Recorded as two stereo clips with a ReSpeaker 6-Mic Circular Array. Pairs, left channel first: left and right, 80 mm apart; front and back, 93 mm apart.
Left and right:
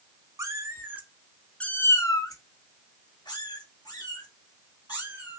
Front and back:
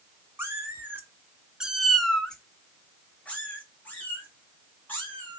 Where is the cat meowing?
125° right, 0.8 m; by 5.4 s 70° left, 2.5 m.